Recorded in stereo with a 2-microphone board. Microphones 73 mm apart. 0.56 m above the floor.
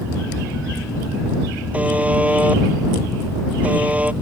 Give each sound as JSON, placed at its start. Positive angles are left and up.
{"t": 1.7, "sound": "a buzzer", "side_deg": -20}